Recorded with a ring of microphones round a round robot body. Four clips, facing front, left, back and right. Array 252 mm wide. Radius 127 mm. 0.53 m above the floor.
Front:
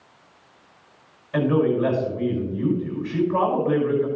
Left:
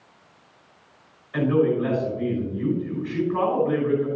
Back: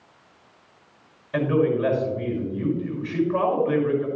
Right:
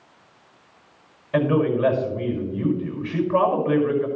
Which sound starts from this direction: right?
A man speaking, at 1.3 s.